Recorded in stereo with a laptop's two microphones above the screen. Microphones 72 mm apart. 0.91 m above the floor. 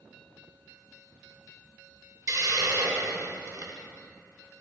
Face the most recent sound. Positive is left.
turn(degrees=-50)  # may be behind; listen again after turning